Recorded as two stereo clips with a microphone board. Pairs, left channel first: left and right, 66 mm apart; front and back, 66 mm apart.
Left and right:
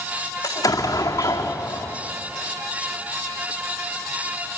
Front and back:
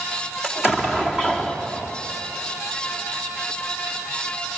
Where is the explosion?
100° left, 2 m.